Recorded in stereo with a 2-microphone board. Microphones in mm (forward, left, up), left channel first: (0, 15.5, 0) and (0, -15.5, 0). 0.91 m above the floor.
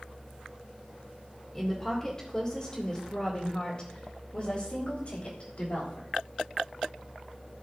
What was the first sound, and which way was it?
A woman speaking, 5° left (ahead or behind).